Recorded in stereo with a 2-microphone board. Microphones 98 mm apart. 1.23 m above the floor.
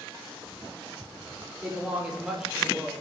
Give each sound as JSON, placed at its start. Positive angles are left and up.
{"t": 1.6, "sound": "a woman speaking", "side_deg": -15, "distance_m": 4.0}